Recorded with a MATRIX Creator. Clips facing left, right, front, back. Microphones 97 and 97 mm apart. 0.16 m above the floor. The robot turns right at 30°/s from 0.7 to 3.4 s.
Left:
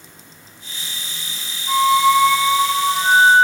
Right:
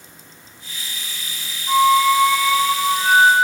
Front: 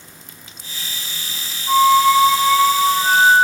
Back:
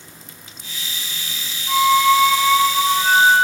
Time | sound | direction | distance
1.7 | a flute | straight ahead | 0.8 m